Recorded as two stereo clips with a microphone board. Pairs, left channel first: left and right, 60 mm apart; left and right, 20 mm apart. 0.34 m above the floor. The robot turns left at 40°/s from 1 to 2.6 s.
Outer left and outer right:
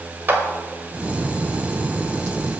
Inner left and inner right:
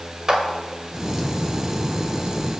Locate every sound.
0.3 s a clap: 35° right (ahead or behind), 1.3 m